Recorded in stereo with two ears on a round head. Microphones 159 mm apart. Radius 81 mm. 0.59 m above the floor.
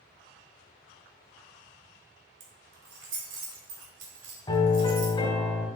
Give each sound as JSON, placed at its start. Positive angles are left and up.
{"t": 2.4, "sound": "keys jangling", "side_deg": -70, "distance_m": 1.9}
{"t": 4.5, "sound": "a piano", "side_deg": 25, "distance_m": 1.6}